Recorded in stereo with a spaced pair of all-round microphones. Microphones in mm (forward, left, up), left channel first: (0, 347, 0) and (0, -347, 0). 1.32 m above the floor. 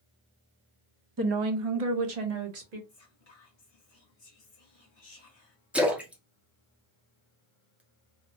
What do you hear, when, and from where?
1.2 s a woman speaking: 30° right (ahead or behind), 0.6 m; by 2.8 s 70° right (ahead or behind), 1.1 m
2.9 s whispering: 55° left (ahead or behind), 1.0 m
5.7 s a splash: centre (ahead or behind), 0.8 m